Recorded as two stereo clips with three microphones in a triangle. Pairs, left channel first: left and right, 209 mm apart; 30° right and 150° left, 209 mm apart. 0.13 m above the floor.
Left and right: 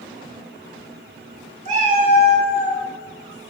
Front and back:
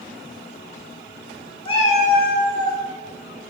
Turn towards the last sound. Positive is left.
turn(degrees=-45)